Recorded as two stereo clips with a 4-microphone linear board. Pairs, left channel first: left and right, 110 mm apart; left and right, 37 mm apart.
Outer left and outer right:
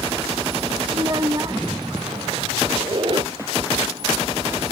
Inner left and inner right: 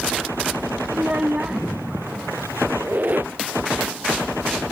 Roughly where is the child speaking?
Right.